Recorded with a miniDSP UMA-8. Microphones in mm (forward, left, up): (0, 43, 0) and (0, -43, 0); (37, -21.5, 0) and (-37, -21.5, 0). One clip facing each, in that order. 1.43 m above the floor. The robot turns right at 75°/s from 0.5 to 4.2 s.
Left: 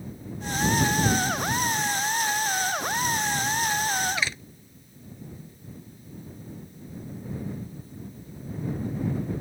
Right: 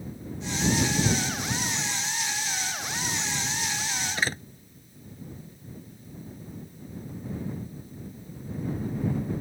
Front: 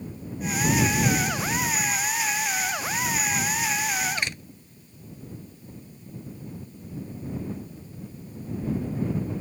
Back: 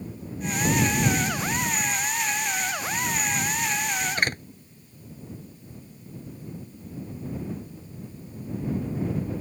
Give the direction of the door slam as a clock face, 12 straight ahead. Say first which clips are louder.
Right 1 dB, back 5 dB; 5 o'clock.